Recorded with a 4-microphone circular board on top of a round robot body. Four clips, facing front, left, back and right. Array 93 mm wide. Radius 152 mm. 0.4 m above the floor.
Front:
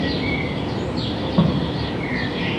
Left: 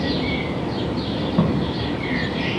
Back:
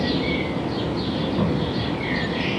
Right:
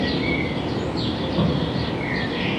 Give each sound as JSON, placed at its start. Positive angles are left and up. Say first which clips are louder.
{"t": 1.4, "sound": "footsteps", "louder": "left 2 dB, front 6 dB", "azimuth_deg": -5, "distance_m": 8.5}